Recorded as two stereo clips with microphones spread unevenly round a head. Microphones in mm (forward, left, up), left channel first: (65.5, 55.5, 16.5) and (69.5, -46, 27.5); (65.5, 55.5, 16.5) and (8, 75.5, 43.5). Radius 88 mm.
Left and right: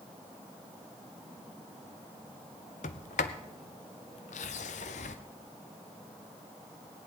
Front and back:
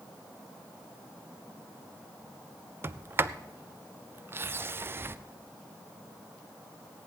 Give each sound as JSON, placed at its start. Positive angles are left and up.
{"t": 2.8, "sound": "a sliding door", "azimuth_deg": 120, "distance_m": 0.5}